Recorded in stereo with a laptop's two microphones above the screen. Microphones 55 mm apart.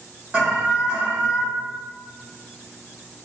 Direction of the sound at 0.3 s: 20° right (ahead or behind).